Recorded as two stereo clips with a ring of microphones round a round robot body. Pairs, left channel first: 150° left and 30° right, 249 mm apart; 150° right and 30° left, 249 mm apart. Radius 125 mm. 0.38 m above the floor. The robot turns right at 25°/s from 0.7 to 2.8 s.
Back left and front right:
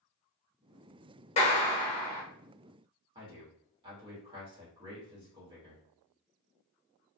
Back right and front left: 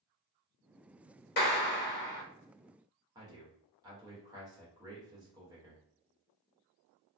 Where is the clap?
160° right, 1.0 m; by 2.2 s 140° right, 1.0 m.